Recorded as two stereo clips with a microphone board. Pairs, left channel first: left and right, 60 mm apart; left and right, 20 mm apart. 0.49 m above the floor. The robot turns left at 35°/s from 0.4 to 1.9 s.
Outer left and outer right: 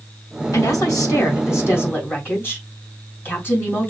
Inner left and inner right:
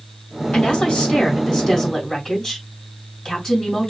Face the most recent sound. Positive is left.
turn(degrees=40)